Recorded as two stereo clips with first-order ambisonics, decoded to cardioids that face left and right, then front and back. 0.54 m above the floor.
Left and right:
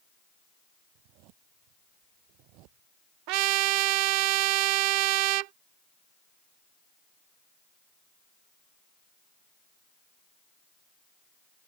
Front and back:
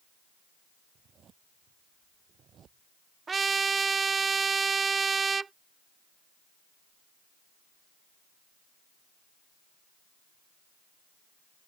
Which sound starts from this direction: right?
A trumpet, at 3.3 s.